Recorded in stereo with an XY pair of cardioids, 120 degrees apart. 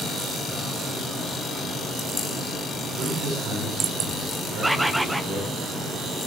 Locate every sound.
3.0 s a man speaking: 55° right, 8.5 m
4.6 s a bird: 5° right, 0.8 m